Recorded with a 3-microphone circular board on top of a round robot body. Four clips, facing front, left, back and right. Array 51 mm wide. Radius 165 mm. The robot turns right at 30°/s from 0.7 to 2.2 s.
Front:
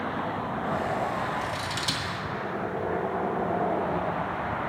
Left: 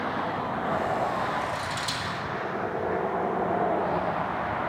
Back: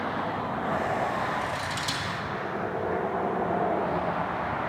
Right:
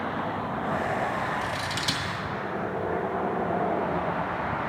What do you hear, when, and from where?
1.4 s scissors: 70° right, 2.0 m; by 2.1 s 50° right, 2.0 m